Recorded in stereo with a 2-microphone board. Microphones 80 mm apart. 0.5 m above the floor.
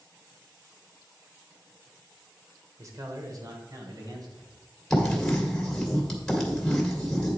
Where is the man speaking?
45° right (ahead or behind), 1.3 m; by 4.6 s 55° right (ahead or behind), 2.5 m.